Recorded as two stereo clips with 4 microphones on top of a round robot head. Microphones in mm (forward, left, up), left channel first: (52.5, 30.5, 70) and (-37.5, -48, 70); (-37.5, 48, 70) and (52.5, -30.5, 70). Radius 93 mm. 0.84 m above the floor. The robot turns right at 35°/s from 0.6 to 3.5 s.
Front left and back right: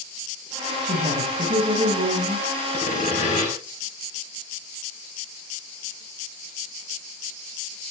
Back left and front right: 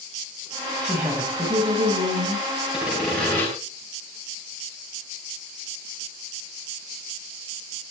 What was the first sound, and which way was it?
A woman speaking, 125° right.